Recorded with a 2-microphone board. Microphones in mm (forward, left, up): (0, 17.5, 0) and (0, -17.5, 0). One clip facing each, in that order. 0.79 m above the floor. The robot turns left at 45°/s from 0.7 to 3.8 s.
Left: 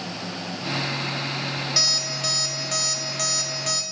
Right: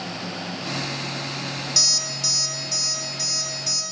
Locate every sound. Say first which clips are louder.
1.8 s an alarm clock: right 2 dB; 155° left, 0.7 m; by 3.8 s 65° left, 0.7 m